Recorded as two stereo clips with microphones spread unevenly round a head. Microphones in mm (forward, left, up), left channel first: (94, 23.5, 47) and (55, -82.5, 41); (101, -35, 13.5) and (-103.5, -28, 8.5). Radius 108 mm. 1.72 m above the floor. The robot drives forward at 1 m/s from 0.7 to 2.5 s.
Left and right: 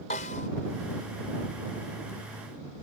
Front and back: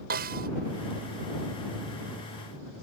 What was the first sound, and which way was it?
A snare drum, 125° left.